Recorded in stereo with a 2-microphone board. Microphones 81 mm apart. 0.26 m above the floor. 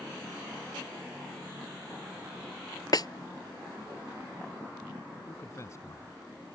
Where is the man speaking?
35° left (ahead or behind).